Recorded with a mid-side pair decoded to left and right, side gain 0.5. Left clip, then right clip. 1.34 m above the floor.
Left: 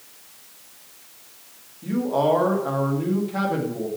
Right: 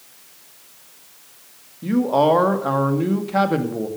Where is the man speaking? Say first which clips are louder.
Right 4 dB; 45° right, 2.5 m.